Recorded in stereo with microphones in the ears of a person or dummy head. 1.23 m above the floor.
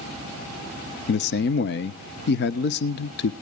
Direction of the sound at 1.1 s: 55° left (ahead or behind).